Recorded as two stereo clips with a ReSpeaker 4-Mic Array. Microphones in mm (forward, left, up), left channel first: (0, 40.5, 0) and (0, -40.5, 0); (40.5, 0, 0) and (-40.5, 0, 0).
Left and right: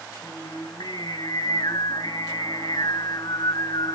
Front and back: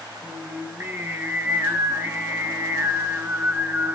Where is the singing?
115° left, 1.8 m.